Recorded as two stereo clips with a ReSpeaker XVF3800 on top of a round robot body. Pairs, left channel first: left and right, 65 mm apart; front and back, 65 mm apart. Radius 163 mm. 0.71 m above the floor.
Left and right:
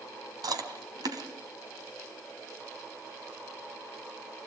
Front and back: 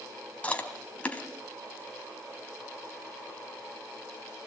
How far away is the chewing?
About 3 m.